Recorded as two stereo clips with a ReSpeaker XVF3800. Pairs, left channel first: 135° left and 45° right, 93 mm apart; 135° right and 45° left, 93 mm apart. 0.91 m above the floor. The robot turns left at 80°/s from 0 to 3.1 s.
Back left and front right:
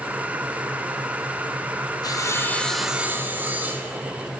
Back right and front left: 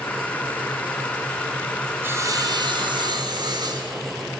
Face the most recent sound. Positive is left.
turn(degrees=20)